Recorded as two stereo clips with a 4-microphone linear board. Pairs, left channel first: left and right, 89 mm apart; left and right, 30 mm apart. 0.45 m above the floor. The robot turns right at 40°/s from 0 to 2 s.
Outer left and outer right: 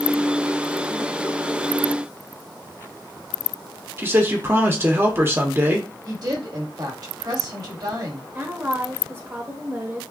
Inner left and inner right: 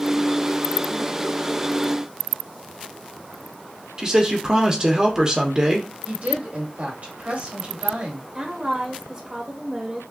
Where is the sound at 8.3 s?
25° right (ahead or behind), 1.5 m.